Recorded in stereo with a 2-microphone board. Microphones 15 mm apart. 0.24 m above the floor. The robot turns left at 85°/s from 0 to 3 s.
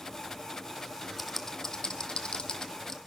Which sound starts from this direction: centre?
Typing on a keyboard, at 1.2 s.